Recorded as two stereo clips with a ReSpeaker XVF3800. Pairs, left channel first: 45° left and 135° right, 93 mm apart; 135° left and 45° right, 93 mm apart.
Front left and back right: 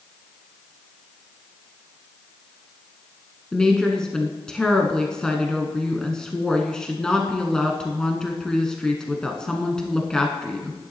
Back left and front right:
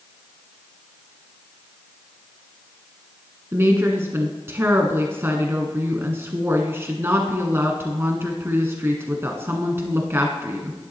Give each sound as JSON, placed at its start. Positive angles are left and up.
{"t": 3.5, "sound": "a woman speaking", "azimuth_deg": -25, "distance_m": 1.1}